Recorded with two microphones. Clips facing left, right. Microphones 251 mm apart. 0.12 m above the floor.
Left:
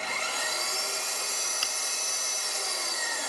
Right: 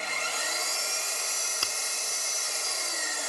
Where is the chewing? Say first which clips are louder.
Right 1 dB; 50° right (ahead or behind), 0.6 m.